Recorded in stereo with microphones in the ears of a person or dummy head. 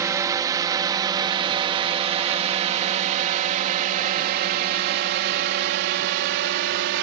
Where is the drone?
20° right (ahead or behind); by 7.0 s 70° right (ahead or behind).